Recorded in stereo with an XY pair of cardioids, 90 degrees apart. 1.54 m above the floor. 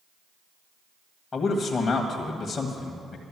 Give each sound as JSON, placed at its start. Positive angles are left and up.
{"t": 1.3, "sound": "a man speaking", "azimuth_deg": 40, "distance_m": 1.7}